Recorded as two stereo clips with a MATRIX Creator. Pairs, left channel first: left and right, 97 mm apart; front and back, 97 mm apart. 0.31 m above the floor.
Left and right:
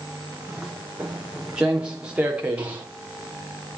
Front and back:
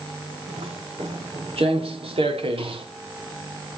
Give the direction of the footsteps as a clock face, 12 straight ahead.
6 o'clock.